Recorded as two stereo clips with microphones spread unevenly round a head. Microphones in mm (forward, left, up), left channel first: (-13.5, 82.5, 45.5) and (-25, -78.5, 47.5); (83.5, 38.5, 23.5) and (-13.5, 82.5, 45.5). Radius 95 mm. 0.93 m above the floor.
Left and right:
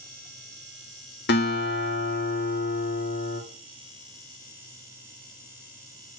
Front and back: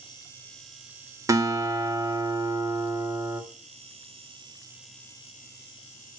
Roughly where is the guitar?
Left.